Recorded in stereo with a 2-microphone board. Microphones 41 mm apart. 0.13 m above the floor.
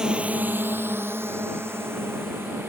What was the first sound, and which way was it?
A drone, 20° right (ahead or behind).